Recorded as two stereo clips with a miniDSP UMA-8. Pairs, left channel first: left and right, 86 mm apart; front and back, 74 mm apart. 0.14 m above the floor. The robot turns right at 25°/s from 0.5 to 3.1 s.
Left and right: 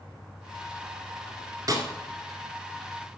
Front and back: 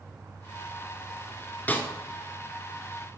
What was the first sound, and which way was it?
A snare drum, 60° right.